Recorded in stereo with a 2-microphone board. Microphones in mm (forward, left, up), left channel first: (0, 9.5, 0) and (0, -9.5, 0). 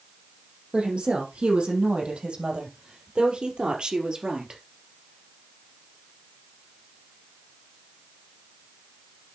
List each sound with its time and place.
0.7 s a woman speaking: 75° right (ahead or behind), 5.5 m; by 4.6 s 35° right (ahead or behind), 3 m